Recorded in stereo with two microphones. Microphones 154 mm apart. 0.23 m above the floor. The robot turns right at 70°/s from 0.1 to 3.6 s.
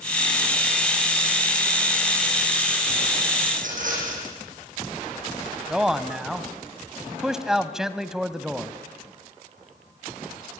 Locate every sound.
3.5 s a rattle: 50° right (ahead or behind), 6.5 m; by 4.3 s 60° right (ahead or behind), 6.5 m
5.7 s a man speaking: 5° right (ahead or behind), 1.2 m